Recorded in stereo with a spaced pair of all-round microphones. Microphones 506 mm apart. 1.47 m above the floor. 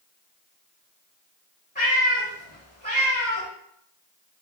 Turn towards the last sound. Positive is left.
turn(degrees=15)  # may be behind; listen again after turning